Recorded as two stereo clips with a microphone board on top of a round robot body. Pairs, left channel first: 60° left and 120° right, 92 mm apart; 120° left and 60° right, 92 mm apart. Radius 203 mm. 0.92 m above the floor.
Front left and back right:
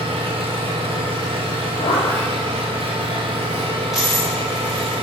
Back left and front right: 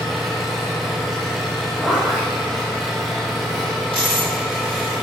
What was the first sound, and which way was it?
An engine running, 150° right.